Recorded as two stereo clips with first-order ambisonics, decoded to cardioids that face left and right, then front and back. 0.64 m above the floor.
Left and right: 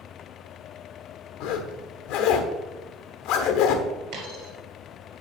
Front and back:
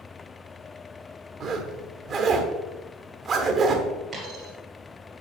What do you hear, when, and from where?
1.4 s a zipper: 115° left, 1.1 m
4.1 s a dropped coin: 110° right, 2.5 m